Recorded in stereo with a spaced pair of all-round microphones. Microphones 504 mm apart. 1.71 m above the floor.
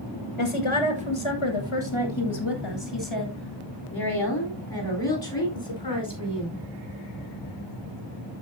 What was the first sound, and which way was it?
A woman speaking, 70° left (ahead or behind).